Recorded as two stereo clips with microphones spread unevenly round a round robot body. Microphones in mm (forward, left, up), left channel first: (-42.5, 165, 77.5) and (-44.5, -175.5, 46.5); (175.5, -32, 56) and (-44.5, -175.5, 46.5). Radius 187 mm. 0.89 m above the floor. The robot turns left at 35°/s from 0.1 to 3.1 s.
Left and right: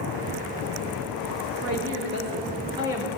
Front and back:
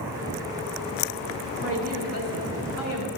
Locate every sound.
1.6 s a woman speaking: 120° right, 1.5 m; by 3.1 s 175° right, 1.5 m